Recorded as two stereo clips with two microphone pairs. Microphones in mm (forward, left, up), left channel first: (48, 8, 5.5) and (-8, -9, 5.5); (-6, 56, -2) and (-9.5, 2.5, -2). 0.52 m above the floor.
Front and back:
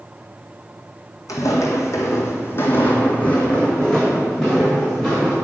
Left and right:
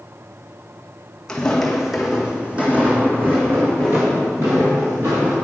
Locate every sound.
1.3 s footsteps: 10° left, 1.6 m; by 5.3 s 75° right, 3 m